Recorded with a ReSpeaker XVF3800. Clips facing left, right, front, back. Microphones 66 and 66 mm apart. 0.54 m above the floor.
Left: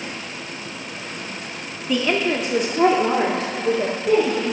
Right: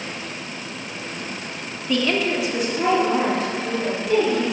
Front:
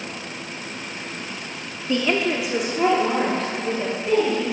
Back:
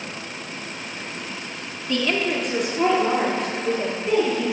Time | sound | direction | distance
1.9 | a woman speaking | 20° left | 0.6 m